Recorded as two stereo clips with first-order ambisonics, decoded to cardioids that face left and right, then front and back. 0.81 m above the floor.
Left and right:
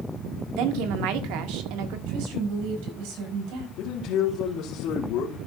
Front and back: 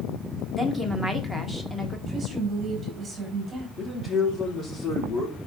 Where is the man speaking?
60° left, 2 m.